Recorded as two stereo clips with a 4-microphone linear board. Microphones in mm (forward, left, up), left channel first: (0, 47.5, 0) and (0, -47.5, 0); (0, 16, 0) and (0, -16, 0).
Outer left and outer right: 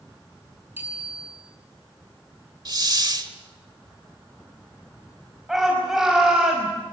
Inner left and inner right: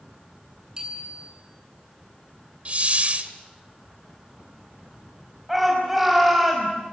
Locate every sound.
0.8 s a bicycle bell: 20° right (ahead or behind), 8.5 m
2.6 s a hiss: 45° right (ahead or behind), 1.5 m
5.5 s a shout: 5° right (ahead or behind), 5.5 m